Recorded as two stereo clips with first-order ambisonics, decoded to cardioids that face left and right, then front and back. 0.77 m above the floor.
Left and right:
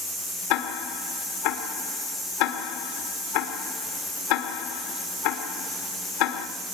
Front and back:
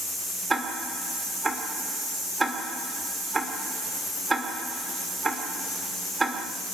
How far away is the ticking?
About 2 m.